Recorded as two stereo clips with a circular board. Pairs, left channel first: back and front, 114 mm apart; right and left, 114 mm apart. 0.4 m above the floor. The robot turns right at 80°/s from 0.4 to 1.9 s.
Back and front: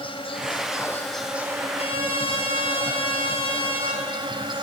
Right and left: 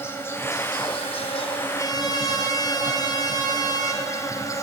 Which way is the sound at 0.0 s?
155° right.